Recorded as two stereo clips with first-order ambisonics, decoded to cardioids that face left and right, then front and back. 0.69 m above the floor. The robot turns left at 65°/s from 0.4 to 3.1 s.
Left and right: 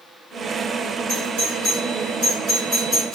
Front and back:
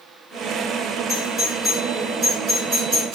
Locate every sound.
1.1 s a doorbell: 55° right, 2.5 m; by 3.1 s 170° left, 2.5 m